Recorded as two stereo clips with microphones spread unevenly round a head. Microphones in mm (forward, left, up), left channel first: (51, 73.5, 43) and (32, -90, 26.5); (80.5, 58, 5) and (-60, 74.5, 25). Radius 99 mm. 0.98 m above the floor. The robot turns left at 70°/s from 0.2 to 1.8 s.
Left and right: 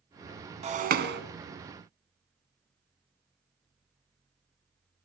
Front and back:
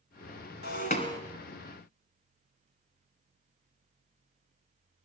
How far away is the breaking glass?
About 1.8 m.